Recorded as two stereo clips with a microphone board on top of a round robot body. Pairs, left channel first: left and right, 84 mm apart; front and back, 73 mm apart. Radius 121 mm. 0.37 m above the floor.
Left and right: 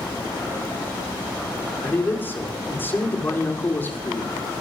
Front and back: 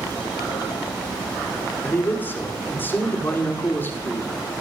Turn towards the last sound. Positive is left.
turn(degrees=40)